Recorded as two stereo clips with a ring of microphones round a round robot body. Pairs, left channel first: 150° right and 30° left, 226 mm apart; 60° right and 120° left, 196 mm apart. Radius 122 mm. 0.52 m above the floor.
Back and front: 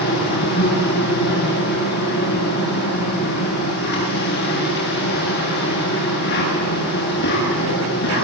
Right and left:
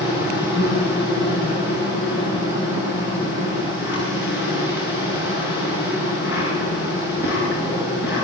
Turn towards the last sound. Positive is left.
turn(degrees=-105)